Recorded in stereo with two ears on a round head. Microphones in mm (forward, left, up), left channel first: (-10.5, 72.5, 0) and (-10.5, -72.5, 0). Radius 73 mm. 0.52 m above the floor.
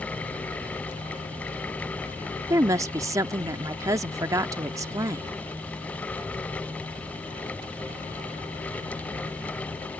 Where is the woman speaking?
20° right (ahead or behind).